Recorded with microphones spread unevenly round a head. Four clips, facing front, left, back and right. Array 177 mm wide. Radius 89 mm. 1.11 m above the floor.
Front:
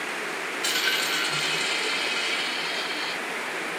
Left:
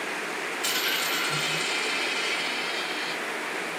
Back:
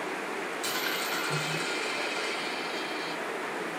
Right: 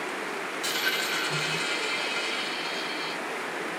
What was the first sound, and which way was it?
A dropped coin, straight behind.